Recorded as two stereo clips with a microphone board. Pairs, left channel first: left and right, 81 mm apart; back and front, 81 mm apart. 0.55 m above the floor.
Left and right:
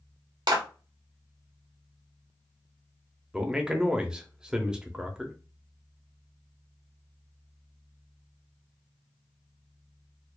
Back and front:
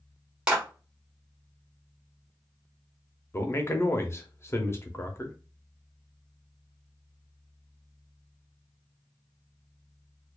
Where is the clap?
80° right, 1.4 m.